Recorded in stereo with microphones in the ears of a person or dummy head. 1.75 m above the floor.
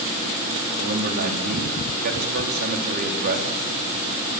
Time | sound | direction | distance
0.8 | a man speaking | 50° right (ahead or behind) | 4.5 m